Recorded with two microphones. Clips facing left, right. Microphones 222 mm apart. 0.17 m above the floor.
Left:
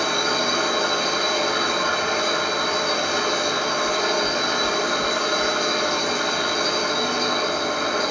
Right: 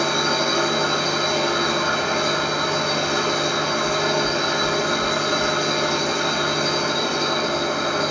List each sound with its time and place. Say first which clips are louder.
0.0 s an engine running: right 2 dB; 35° right (ahead or behind), 0.9 m
3.8 s knocking: right 1 dB; 10° right (ahead or behind), 1.7 m